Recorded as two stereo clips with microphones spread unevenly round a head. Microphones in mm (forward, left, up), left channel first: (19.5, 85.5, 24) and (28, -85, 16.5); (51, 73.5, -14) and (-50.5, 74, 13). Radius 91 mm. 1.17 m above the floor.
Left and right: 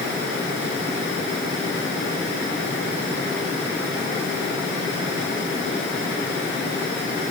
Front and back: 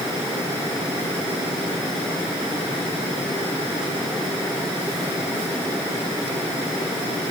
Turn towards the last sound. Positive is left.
No sound to turn to.